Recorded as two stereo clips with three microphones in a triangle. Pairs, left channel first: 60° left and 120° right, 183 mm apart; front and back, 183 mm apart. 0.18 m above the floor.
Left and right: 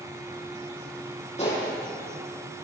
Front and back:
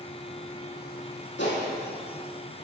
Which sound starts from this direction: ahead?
A gunshot, at 1.4 s.